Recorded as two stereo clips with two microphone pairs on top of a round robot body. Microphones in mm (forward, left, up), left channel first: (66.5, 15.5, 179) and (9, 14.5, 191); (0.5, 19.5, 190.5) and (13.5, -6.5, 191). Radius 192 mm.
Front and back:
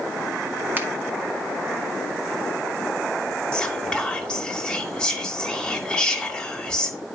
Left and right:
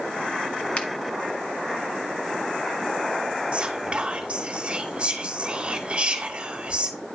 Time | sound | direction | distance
0.8 | a finger snap | 125° left | 1.5 m
3.5 | whispering | 50° right | 1.7 m